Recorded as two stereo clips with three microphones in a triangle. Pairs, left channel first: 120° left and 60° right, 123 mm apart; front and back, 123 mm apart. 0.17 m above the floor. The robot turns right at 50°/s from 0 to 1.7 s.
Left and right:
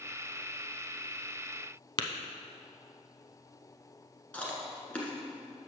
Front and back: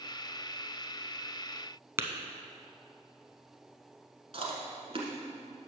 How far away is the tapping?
About 0.6 m.